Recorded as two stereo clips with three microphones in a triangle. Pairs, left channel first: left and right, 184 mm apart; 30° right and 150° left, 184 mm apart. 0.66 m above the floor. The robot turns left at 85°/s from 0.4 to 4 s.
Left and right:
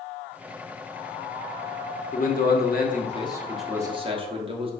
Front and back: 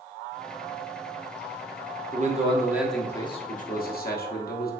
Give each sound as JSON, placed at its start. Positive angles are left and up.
{"t": 2.1, "sound": "a man speaking", "azimuth_deg": 125, "distance_m": 0.9}